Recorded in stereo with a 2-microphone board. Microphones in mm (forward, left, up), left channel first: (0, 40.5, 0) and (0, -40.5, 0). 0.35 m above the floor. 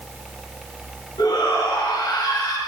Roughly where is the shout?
Left.